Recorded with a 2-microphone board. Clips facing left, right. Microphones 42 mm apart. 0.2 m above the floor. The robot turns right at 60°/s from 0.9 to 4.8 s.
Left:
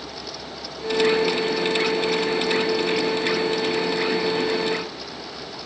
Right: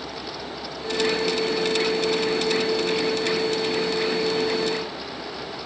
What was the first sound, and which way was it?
Only background noise.